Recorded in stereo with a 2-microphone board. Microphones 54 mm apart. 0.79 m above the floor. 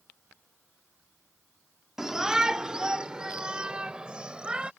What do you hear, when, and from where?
2.0 s a shout: 10° right (ahead or behind); by 4.7 s 20° right (ahead or behind)